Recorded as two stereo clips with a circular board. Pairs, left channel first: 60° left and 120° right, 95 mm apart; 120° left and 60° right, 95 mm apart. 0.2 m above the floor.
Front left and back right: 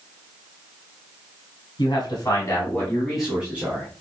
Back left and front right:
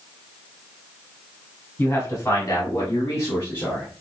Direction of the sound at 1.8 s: 60° left.